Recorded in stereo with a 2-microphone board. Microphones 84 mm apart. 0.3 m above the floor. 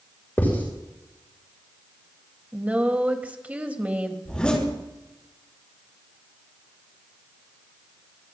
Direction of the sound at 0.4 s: 25° left (ahead or behind).